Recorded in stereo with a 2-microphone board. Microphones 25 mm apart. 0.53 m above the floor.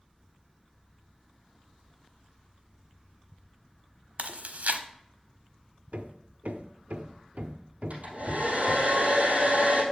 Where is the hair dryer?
55° right (ahead or behind), 3 m.